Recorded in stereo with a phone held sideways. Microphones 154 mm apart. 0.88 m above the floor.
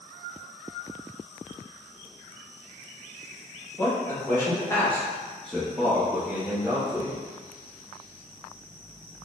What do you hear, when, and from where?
3.8 s a man speaking: 20° left (ahead or behind), 1.3 m; by 7.2 s 15° right (ahead or behind), 1.2 m